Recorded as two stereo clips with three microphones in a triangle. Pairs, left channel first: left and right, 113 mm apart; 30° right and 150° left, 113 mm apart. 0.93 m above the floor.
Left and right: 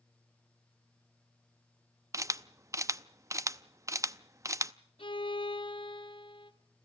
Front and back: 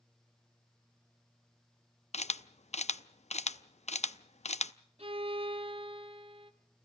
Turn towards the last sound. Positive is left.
turn(degrees=125)